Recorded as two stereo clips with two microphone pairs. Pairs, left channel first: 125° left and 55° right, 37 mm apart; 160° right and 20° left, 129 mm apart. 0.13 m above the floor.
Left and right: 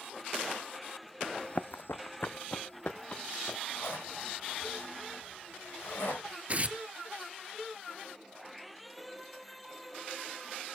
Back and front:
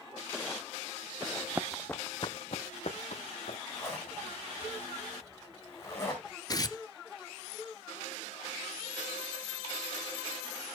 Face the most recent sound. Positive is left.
turn(degrees=-100)